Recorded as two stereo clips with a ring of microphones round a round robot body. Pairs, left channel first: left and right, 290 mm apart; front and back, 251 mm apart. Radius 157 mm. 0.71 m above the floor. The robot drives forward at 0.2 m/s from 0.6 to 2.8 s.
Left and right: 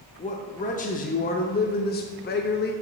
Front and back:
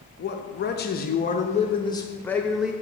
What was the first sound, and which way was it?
A man speaking, 35° left.